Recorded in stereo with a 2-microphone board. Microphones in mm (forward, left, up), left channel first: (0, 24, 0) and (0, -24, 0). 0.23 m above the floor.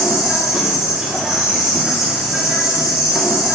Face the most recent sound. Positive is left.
turn(degrees=-10)  # may be behind; listen again after turning